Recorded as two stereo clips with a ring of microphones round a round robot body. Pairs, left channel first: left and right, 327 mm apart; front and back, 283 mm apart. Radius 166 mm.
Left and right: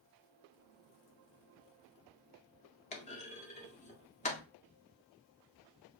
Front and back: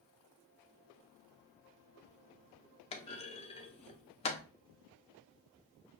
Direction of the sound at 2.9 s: 45° left.